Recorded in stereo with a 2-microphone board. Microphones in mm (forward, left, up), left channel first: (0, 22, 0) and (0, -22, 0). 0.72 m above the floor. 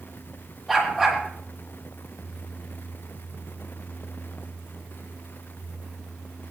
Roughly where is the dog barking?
Centre.